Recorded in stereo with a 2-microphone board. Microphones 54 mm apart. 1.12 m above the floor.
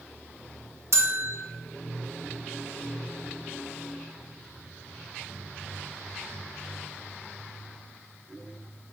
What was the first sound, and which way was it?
A bell, 65° right (ahead or behind).